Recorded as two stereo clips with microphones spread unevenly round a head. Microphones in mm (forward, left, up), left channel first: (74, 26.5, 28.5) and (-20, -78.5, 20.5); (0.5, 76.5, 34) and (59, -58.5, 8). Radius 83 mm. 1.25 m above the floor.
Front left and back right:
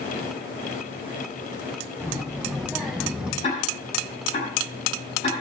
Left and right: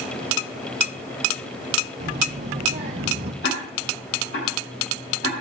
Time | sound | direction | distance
2.0 | a child speaking | 40° right | 2.5 m
3.4 | ticking | 105° left | 10 m